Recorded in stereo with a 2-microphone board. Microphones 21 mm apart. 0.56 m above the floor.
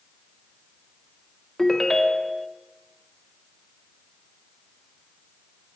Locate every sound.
1.6 s a ringtone: 20° left (ahead or behind), 0.5 m